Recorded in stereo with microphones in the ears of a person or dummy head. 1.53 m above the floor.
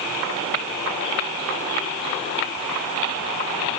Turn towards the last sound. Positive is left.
No sound to turn to.